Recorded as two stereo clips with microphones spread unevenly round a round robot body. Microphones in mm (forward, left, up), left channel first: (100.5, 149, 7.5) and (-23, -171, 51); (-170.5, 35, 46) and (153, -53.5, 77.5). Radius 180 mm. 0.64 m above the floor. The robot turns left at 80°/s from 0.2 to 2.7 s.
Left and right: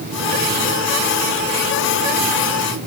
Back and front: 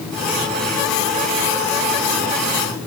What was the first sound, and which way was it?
Only background noise.